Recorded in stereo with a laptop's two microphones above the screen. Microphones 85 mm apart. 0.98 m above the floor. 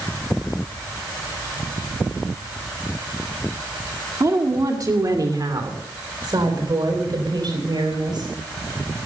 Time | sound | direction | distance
4.2 | a woman speaking | 40° right (ahead or behind) | 2 m